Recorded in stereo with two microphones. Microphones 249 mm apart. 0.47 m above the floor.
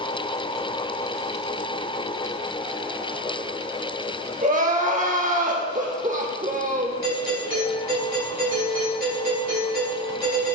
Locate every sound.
4.4 s crying: 30° right (ahead or behind), 0.8 m
7.0 s a doorbell: 35° right (ahead or behind), 3 m